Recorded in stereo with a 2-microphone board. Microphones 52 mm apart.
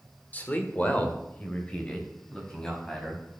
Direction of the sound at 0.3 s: 30° left (ahead or behind).